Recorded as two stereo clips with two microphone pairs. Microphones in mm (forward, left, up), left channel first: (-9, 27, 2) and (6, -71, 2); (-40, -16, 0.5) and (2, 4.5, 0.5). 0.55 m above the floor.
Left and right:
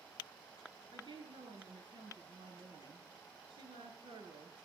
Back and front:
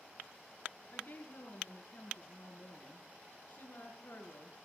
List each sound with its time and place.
0.9 s a woman speaking: 115° right, 8.5 m